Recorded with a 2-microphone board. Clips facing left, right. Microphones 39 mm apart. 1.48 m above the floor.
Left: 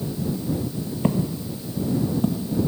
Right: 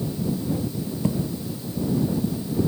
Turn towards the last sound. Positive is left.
turn(degrees=65)  # may be behind; listen again after turning